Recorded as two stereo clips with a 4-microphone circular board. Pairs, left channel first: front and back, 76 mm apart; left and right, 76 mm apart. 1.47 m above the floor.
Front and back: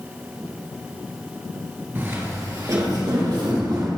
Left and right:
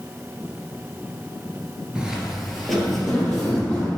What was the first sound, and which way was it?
Footsteps, 155° right.